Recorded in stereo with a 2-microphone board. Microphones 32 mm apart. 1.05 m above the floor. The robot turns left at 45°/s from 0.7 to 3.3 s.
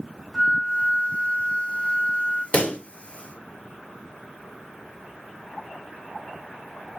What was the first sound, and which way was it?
A flute, 30° right.